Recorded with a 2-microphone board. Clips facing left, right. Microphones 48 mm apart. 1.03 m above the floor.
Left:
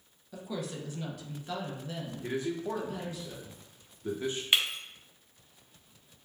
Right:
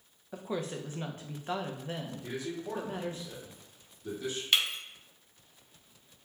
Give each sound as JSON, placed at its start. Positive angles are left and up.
{"t": 0.3, "sound": "a woman speaking", "side_deg": -35, "distance_m": 0.5}
{"t": 2.2, "sound": "a man speaking", "side_deg": 40, "distance_m": 0.8}
{"t": 4.5, "sound": "breaking glass", "side_deg": 15, "distance_m": 0.6}